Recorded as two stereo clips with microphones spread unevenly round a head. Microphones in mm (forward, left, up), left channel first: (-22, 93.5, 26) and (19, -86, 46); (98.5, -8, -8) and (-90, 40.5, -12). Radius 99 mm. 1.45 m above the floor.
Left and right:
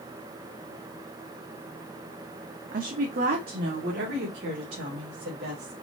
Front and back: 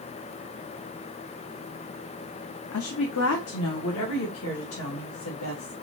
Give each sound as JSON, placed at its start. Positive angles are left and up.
{"t": 2.7, "sound": "a woman speaking", "azimuth_deg": -30, "distance_m": 0.7}